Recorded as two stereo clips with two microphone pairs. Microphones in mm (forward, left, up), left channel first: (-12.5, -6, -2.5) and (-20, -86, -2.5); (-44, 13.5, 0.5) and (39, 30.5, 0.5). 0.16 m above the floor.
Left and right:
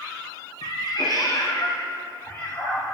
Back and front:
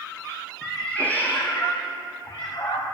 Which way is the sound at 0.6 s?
105° left.